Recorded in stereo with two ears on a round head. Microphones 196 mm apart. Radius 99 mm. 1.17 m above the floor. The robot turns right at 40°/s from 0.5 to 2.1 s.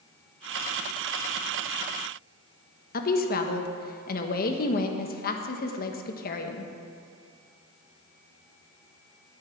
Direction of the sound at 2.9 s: 45° left (ahead or behind).